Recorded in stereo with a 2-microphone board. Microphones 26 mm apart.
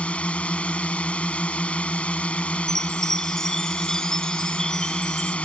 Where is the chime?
15° left (ahead or behind).